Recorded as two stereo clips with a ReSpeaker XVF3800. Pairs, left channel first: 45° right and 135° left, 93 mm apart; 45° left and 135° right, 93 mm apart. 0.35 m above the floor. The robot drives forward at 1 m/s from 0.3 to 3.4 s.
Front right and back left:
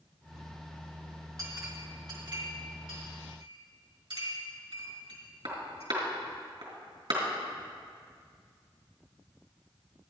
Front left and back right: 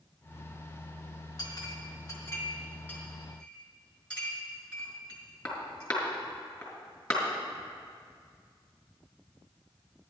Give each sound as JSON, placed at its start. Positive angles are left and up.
{"t": 1.4, "sound": "a clink", "azimuth_deg": 85, "distance_m": 3.0}